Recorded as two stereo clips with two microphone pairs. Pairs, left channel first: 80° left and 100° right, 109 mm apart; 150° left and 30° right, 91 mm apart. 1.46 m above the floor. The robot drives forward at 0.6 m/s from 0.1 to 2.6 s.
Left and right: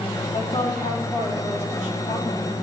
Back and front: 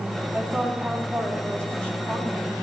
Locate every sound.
0.3 s a woman speaking: 55° left, 3.5 m; by 2.5 s 80° left, 3 m